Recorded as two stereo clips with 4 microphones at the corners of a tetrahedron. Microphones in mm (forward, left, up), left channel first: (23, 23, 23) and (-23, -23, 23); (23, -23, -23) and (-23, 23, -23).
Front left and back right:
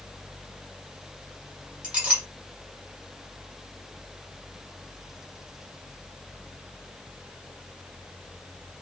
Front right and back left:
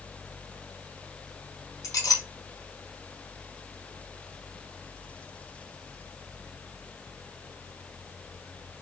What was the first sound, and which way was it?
A clink, 65° right.